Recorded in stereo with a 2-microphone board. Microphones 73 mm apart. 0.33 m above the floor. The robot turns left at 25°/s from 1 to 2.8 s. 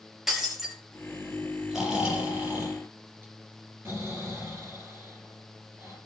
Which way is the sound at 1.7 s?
5° right (ahead or behind).